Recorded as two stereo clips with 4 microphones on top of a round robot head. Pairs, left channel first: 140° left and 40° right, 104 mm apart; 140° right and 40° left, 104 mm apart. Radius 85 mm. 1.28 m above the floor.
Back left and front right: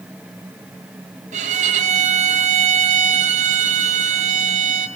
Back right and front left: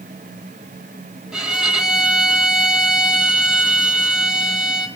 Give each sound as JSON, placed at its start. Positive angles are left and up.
{"t": 1.3, "sound": "a violin", "azimuth_deg": -45, "distance_m": 1.6}